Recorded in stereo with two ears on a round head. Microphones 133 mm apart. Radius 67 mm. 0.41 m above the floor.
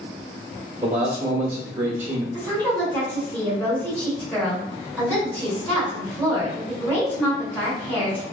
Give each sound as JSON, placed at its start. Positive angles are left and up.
{"t": 0.8, "sound": "a man speaking", "side_deg": -15, "distance_m": 0.8}
{"t": 2.3, "sound": "a woman speaking", "side_deg": 10, "distance_m": 1.7}